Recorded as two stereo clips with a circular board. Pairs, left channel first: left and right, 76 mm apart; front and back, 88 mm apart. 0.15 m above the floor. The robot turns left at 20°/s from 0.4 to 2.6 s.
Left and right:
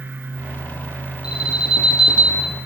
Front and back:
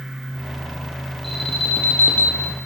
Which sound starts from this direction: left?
An alarm, at 1.2 s.